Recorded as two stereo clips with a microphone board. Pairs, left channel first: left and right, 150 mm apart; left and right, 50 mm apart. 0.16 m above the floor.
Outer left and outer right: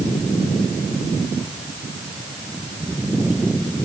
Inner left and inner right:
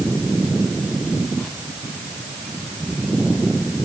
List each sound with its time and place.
Only background noise.